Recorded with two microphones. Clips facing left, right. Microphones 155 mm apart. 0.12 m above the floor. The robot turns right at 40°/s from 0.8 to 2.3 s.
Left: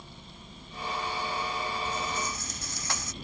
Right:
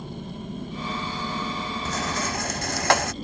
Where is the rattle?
80° right; by 3.1 s 70° right (ahead or behind).